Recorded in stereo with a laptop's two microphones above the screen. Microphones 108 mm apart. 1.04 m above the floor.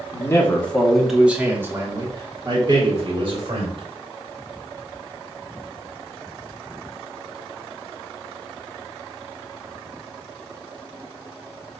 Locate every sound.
0.1 s a man speaking: 30° left (ahead or behind), 1.3 m; by 3.8 s 55° right (ahead or behind), 2.5 m